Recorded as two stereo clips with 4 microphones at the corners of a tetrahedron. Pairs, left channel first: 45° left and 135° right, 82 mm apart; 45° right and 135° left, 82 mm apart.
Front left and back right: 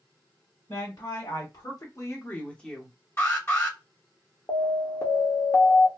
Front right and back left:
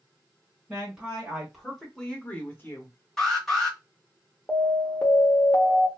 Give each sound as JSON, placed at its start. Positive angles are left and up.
{"t": 0.7, "sound": "a woman speaking", "azimuth_deg": 60, "distance_m": 1.5}
{"t": 3.2, "sound": "an alarm", "azimuth_deg": 40, "distance_m": 1.4}
{"t": 4.5, "sound": "an alarm", "azimuth_deg": 10, "distance_m": 0.9}